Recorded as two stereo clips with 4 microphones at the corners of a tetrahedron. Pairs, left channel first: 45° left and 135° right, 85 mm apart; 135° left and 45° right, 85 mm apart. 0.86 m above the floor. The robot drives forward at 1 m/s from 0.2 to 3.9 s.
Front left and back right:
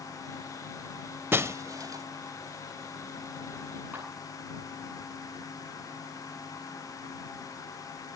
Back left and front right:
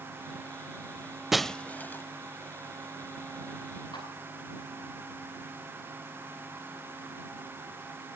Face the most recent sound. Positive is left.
turn(degrees=160)